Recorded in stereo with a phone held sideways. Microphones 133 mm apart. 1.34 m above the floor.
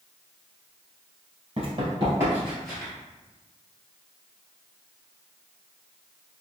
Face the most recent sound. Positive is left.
turn(degrees=15)  # may be behind; listen again after turning